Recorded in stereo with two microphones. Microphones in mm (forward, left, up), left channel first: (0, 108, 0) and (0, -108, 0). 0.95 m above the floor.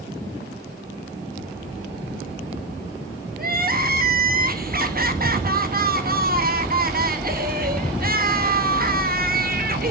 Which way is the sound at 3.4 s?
45° right (ahead or behind).